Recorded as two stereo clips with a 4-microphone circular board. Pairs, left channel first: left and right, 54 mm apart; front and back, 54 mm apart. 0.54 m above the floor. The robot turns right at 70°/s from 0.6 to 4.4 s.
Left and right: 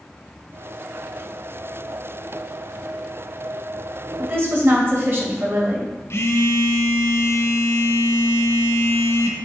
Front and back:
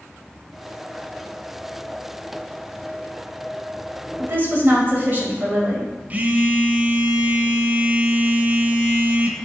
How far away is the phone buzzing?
About 0.9 m.